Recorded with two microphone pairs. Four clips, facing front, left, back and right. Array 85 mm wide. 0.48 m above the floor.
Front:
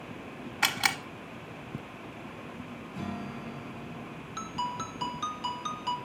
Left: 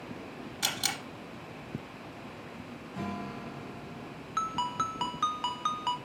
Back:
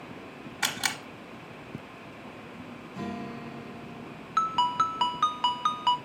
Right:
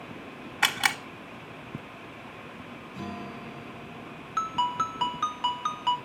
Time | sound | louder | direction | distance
0.6 | a camera shutter | right 10 dB, front 3 dB | 75° right | 1.0 m
2.9 | a guitar | left 1 dB, back 2 dB | 90° left | 3 m
4.4 | a ringtone | right 4 dB, back 10 dB | 170° right | 0.7 m